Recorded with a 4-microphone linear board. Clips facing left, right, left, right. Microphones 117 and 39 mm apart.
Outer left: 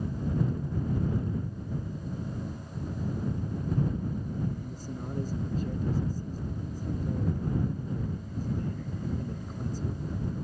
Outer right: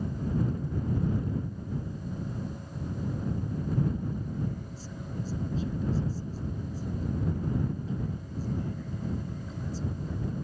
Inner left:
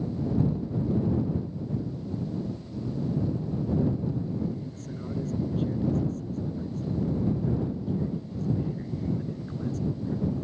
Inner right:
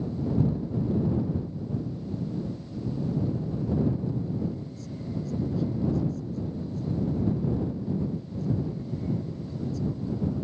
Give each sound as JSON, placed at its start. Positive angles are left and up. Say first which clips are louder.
{"t": 4.6, "sound": "a man speaking", "louder": "outer left 3 dB, even", "side_deg": 50}